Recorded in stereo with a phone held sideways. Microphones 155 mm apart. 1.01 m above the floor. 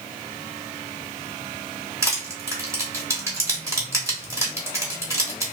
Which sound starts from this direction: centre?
Crushing, at 2.0 s.